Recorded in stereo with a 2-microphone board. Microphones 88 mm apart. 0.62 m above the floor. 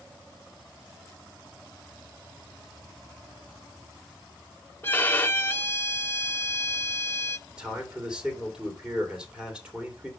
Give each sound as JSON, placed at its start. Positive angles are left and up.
{"t": 4.8, "sound": "a violin", "side_deg": 25, "distance_m": 0.6}
{"t": 7.5, "sound": "a man speaking", "side_deg": -10, "distance_m": 2.5}